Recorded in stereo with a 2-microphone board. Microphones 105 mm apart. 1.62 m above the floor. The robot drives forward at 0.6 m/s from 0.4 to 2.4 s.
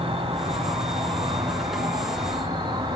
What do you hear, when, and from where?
0.0 s an insect: 55° right (ahead or behind), 3 m; by 3.0 s 40° right (ahead or behind), 3.5 m